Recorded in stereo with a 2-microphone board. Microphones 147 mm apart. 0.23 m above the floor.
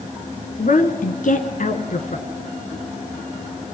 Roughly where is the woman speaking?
Left.